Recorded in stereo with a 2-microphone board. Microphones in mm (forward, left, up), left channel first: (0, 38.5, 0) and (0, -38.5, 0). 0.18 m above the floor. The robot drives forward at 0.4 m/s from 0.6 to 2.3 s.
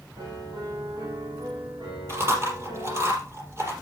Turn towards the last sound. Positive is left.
turn(degrees=-35)  # may be behind; listen again after turning